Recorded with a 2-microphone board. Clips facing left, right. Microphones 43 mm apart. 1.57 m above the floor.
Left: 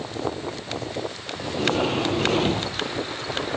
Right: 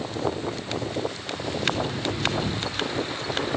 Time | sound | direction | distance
1.4 | a sliding door | 85° left | ?